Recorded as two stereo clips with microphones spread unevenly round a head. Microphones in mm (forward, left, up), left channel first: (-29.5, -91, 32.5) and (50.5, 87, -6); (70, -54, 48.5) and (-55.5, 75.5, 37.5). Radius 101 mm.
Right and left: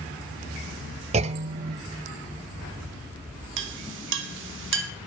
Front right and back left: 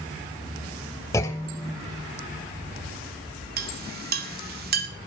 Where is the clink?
95° left, 2 m.